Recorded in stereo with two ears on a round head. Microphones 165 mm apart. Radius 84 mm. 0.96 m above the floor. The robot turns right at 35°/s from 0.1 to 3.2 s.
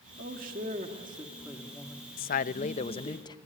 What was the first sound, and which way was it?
A man speaking, 60° right.